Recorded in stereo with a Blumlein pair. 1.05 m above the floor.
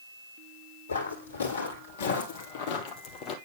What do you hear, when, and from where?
0.9 s footsteps: 65° left, 3 m; by 3.4 s 30° left, 2 m